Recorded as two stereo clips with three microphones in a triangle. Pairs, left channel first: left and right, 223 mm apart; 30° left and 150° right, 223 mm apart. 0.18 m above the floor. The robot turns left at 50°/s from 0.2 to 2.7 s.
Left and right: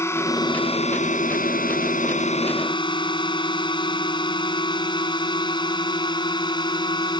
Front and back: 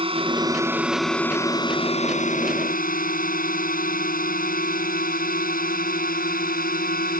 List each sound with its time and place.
0.0 s a drone: 160° left; by 7.2 s 30° left